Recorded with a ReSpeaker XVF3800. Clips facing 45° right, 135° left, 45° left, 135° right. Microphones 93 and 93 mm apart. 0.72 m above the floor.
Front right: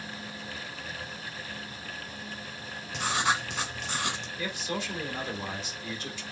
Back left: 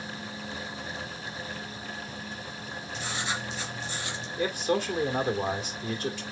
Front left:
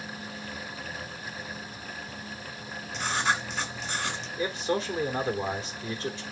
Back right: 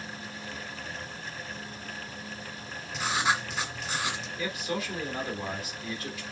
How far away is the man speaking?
About 2.5 m.